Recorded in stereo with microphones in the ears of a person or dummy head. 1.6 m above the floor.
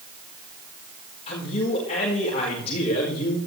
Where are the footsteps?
I don't hear footsteps.